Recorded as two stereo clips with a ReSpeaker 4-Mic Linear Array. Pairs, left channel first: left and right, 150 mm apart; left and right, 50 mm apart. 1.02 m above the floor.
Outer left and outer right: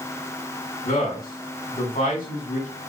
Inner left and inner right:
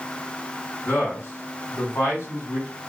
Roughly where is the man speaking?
Left.